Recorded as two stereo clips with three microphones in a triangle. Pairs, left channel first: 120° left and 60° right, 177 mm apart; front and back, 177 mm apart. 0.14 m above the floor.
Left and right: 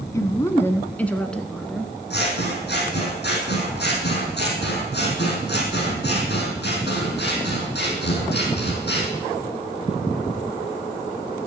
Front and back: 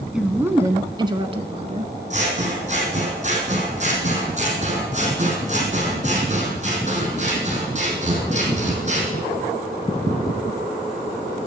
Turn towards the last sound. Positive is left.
turn(degrees=130)